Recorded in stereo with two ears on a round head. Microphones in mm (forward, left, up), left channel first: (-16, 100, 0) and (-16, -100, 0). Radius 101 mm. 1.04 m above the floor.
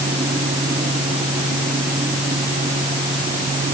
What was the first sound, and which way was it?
Only background noise.